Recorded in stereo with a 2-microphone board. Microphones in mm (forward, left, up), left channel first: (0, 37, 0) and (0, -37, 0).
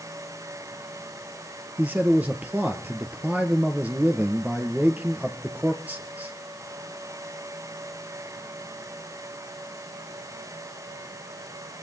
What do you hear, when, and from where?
1.8 s a man speaking: 20° right (ahead or behind), 2 m